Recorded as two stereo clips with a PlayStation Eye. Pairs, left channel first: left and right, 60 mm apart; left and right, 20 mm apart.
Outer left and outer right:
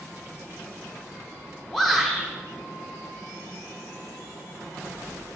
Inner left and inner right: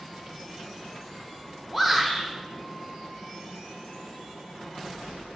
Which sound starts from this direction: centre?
A shout, at 1.7 s.